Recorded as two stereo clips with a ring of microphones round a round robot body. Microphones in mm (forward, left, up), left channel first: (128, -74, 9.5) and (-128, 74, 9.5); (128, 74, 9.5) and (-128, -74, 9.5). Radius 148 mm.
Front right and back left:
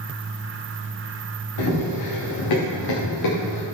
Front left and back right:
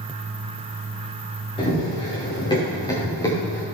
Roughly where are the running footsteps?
Ahead right.